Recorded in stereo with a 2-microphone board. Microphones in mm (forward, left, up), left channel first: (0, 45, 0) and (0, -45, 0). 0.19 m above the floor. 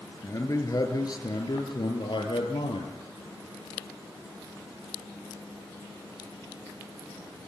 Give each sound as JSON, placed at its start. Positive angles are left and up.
{"t": 0.2, "sound": "a man speaking", "side_deg": 30, "distance_m": 4.0}